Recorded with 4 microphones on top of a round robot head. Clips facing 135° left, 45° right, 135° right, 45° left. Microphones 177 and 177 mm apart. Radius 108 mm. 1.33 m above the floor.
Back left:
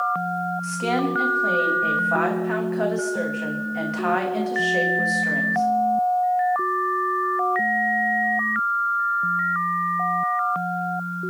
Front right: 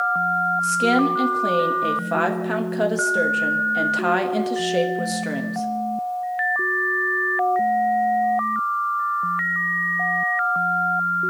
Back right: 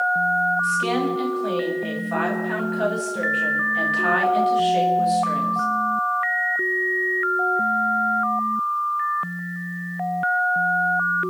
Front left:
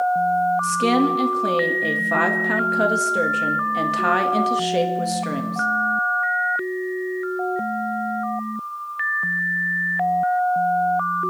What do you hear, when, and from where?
0.6 s a woman speaking: 10° left, 1.5 m